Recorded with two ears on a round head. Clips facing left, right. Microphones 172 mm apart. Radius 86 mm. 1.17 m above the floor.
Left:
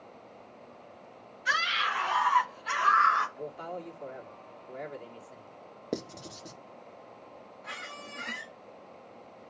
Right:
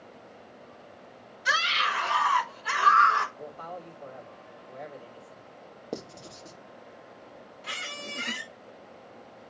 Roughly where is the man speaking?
Left.